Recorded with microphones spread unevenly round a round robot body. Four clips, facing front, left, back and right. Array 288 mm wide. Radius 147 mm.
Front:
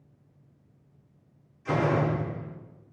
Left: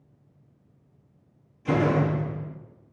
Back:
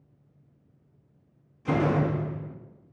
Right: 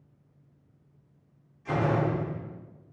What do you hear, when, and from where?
1.6 s a door slam: 135° left, 1.3 m